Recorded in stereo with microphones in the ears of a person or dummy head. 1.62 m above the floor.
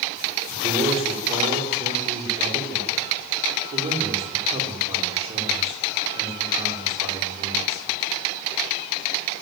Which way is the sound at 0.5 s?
35° right (ahead or behind).